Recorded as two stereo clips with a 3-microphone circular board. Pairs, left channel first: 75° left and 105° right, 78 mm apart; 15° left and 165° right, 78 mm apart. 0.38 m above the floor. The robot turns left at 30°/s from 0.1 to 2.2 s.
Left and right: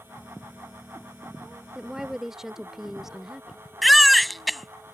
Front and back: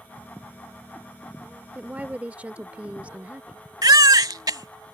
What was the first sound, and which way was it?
A woman speaking, 165° right.